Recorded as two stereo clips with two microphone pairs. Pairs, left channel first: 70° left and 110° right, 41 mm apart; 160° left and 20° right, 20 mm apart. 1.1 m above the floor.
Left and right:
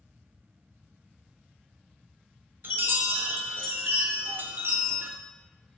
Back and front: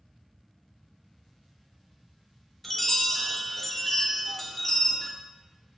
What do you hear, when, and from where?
2.6 s a chime: 120° right, 0.6 m